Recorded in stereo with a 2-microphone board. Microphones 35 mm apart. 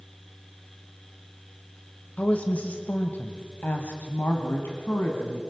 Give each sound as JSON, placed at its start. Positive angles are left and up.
{"t": 2.2, "sound": "a woman speaking", "side_deg": 40, "distance_m": 1.3}